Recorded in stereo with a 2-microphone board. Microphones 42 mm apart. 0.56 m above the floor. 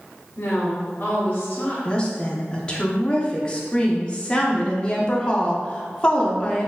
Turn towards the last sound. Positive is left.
turn(degrees=25)  # may be behind; listen again after turning